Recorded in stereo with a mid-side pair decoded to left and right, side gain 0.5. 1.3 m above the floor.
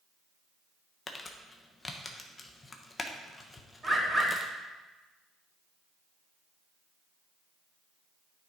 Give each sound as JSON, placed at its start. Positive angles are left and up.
{"t": 1.1, "sound": "crumpling", "azimuth_deg": 25, "distance_m": 1.1}
{"t": 3.8, "sound": "a bird", "azimuth_deg": -20, "distance_m": 3.5}